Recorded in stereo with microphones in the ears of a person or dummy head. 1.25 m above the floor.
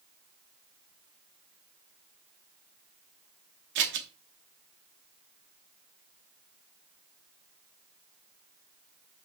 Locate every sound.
3.8 s scissors: 60° right (ahead or behind), 0.6 m